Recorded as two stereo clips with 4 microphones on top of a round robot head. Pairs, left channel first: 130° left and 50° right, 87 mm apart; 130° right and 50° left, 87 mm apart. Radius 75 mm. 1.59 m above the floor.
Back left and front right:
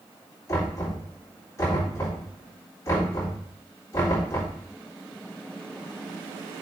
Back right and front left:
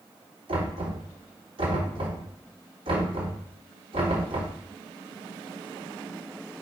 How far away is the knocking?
About 4 m.